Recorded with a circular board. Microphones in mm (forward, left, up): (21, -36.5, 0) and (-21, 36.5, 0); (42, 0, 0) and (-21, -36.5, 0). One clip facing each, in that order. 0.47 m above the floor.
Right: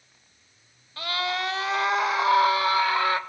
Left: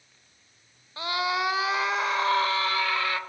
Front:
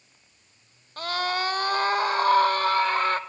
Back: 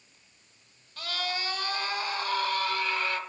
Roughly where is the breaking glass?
I don't hear breaking glass.